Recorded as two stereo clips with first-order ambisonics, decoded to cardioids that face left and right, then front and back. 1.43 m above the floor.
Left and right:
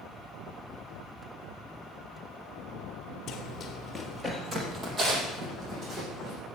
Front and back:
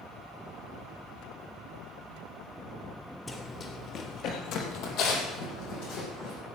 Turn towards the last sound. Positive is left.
turn(degrees=-35)